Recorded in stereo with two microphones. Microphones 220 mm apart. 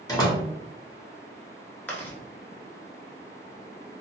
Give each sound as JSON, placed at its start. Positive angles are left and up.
{"t": 0.1, "sound": "a door slam", "side_deg": 20, "distance_m": 0.9}
{"t": 1.9, "sound": "chewing", "side_deg": 10, "distance_m": 1.0}